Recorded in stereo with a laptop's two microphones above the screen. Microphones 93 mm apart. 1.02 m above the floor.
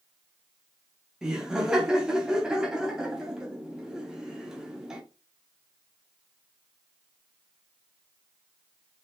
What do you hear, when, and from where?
1.2 s laughter: 10° right (ahead or behind), 0.6 m